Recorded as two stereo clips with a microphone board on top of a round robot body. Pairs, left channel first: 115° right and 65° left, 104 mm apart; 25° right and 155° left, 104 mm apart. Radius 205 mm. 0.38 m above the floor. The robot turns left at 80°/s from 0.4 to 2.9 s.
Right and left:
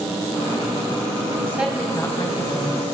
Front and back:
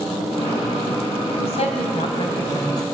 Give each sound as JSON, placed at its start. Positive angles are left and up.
{"t": 1.3, "sound": "a woman speaking", "azimuth_deg": 10, "distance_m": 4.5}